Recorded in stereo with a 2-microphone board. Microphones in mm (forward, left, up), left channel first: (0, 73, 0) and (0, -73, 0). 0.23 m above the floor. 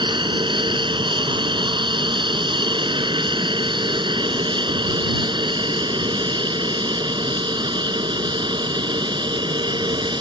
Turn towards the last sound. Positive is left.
turn(degrees=-30)  # may be behind; listen again after turning